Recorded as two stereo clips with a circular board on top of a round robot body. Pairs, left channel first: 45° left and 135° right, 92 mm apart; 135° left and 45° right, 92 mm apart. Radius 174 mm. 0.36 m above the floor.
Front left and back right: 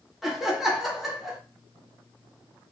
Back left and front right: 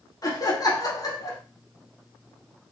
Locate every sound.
0.2 s laughter: 140° left, 1.5 m